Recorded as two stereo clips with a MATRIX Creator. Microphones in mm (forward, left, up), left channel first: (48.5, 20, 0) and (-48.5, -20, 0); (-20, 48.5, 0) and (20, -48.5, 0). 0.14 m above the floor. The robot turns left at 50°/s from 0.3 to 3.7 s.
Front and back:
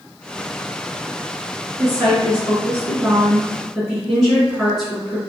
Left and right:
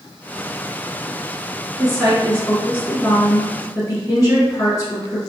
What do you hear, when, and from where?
1.8 s a woman speaking: 150° right, 1.8 m; by 5.2 s 115° left, 1.8 m